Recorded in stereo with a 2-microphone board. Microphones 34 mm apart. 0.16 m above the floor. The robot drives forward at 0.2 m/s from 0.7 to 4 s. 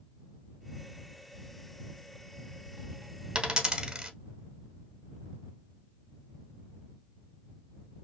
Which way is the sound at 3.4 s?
25° right (ahead or behind).